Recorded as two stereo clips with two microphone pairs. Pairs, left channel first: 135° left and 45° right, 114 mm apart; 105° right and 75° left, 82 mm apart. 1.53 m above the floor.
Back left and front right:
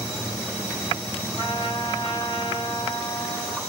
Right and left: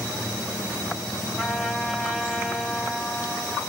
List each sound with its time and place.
1.4 s a trumpet: 165° left, 1.5 m